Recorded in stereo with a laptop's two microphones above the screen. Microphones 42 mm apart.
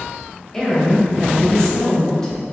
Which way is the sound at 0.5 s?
15° left (ahead or behind).